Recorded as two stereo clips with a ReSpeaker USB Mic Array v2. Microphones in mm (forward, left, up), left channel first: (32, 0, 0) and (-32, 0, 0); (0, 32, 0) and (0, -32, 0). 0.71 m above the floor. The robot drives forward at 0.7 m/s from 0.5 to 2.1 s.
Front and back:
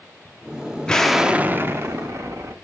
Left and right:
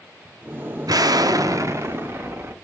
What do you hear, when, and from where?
0.9 s an explosion: 75° right, 0.6 m; by 2.5 s 140° right, 0.9 m